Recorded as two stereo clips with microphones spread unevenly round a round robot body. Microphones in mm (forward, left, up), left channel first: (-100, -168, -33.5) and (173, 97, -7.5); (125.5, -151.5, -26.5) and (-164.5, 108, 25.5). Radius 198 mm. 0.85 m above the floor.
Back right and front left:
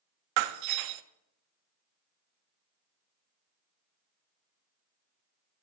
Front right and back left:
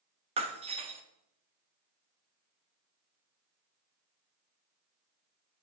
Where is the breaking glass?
65° left, 0.5 m.